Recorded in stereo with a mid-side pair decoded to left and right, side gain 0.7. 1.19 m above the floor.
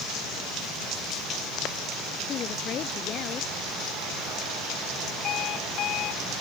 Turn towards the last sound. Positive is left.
turn(degrees=50)